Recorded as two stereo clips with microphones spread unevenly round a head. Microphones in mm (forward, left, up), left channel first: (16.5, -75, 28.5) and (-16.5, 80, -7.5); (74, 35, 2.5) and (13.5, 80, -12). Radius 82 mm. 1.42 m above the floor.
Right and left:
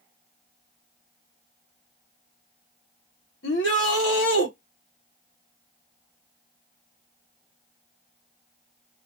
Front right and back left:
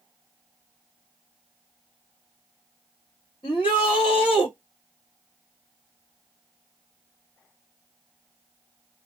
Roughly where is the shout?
Right.